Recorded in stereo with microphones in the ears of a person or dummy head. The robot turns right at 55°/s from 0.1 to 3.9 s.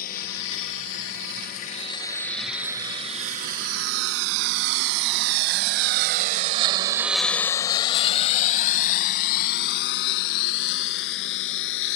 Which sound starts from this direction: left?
A lawn mower, at 0.0 s.